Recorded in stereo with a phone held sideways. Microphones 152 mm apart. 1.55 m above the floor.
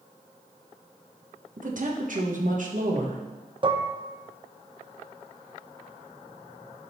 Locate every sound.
1.6 s a woman speaking: 60° right (ahead or behind), 1.3 m
3.6 s dishes clattering: 35° right (ahead or behind), 0.7 m